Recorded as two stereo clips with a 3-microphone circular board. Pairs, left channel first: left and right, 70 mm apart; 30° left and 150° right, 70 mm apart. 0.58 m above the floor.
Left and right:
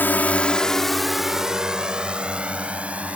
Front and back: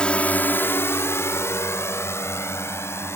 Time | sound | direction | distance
0.0 | a drone | 90° left | ?